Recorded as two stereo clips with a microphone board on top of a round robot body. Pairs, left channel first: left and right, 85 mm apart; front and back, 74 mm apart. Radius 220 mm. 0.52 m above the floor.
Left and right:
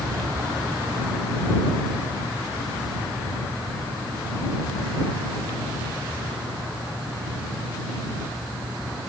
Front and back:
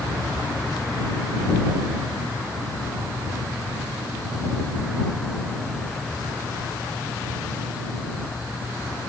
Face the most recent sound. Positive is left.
No sound to turn to.